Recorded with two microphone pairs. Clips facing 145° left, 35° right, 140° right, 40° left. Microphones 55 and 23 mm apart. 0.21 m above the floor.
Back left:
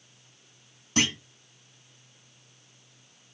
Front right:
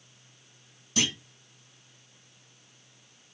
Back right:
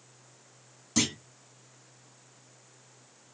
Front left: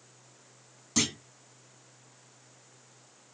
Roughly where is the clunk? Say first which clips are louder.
Back left 3 dB, back right 1 dB; behind left.